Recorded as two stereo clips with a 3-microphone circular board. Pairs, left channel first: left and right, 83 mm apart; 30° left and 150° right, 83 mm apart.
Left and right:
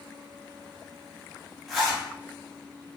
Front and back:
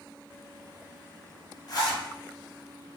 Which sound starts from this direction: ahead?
A zipper, at 1.7 s.